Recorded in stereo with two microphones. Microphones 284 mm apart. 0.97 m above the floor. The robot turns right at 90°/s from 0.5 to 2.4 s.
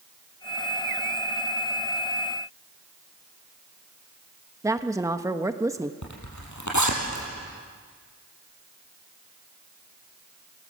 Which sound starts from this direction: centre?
A woman speaking, at 4.6 s.